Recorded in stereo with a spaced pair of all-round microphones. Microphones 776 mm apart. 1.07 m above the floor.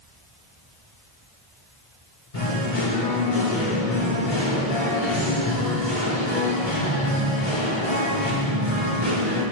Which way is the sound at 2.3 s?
80° left.